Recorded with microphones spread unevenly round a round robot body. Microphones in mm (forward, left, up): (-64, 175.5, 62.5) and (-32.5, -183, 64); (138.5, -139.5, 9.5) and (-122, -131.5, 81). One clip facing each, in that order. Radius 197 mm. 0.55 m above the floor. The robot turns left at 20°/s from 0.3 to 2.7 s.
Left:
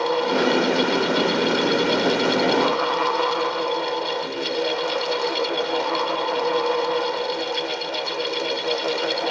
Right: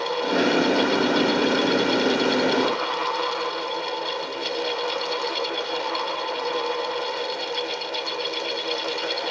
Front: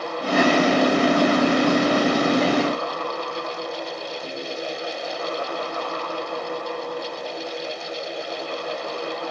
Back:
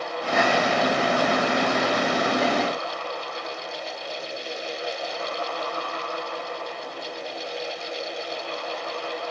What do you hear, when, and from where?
Only background noise.